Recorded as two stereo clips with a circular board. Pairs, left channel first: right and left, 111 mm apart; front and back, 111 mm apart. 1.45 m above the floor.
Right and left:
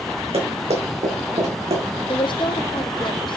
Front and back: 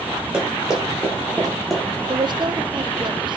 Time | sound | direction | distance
0.3 | running footsteps | 100° left | 4.5 m
2.1 | a woman speaking | 135° right | 0.7 m